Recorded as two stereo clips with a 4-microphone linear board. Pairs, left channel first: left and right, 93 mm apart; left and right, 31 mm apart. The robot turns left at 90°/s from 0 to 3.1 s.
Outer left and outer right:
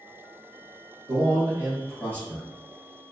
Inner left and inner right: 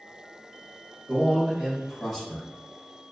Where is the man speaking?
105° right, 1.9 m; by 2.5 s 130° left, 1.9 m.